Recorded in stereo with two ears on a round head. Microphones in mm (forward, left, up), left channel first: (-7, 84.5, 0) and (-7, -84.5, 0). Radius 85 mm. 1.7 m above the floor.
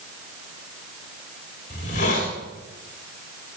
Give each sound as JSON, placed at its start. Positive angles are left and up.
{"t": 1.7, "sound": "a hiss", "side_deg": 40, "distance_m": 4.0}